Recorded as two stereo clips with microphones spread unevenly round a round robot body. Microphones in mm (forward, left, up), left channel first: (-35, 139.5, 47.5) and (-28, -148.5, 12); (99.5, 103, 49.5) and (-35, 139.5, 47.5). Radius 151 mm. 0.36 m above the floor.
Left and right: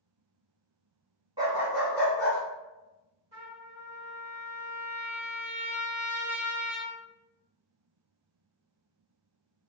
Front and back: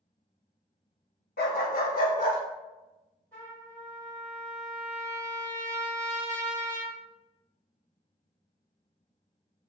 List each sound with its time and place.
1.4 s a dog barking: 15° right, 0.5 m; by 2.4 s 15° left, 1.0 m
3.3 s a trumpet: 85° right, 1.7 m